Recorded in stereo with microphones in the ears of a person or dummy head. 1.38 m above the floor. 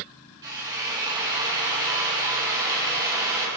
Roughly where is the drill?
Centre.